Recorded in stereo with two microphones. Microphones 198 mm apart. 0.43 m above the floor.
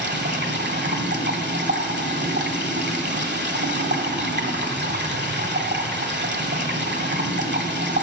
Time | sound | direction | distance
0.0 | running water | 70° right (ahead or behind) | 1.2 m